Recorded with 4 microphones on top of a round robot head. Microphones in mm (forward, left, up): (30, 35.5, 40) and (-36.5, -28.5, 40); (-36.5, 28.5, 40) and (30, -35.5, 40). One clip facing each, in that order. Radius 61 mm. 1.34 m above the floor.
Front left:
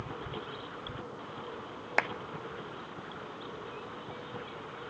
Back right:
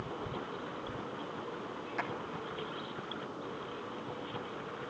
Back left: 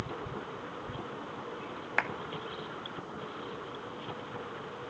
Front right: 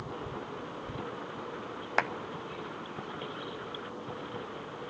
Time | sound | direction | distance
2.0 | a clap | 20° left | 1.0 m